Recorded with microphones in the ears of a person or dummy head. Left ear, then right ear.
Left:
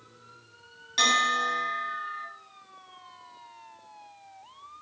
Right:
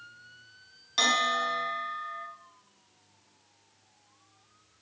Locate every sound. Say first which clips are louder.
1.0 s a bell: left 2 dB; centre (ahead or behind), 1.4 m